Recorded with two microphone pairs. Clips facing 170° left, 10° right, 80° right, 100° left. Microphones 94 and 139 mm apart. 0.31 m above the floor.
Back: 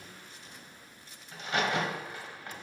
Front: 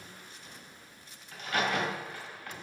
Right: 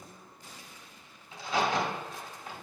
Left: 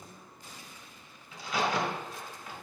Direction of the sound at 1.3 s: 130° right.